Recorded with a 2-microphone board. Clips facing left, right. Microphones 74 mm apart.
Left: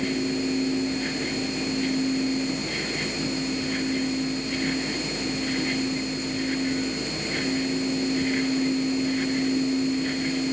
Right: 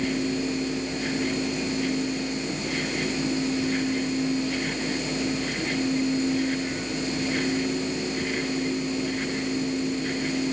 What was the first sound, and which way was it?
Only background noise.